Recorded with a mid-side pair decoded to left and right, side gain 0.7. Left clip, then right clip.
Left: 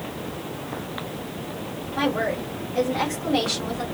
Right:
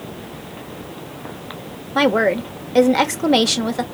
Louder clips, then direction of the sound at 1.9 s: Right 8 dB; 65° right.